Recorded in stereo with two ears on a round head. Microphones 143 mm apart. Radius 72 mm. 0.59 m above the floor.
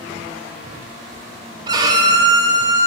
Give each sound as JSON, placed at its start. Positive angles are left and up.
{"t": 1.7, "sound": "a violin", "side_deg": -25, "distance_m": 0.6}